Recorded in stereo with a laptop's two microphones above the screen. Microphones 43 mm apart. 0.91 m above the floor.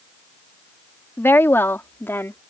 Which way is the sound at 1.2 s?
65° left (ahead or behind).